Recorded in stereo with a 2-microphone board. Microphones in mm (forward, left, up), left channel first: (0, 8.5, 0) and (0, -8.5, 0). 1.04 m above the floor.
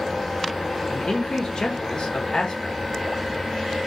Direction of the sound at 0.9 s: 55° left (ahead or behind).